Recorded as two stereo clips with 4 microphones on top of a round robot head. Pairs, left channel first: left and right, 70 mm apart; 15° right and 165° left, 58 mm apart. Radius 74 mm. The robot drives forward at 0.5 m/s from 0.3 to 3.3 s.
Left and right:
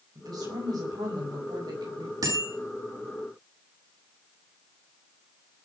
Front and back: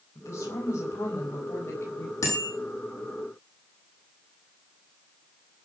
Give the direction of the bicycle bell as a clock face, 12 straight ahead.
2 o'clock.